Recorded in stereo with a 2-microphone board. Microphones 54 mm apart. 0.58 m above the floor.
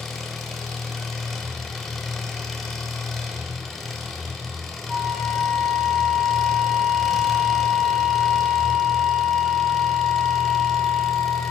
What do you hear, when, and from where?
0.0 s an engine running: 5° left (ahead or behind), 0.9 m
4.9 s a flute: 15° right (ahead or behind), 3.5 m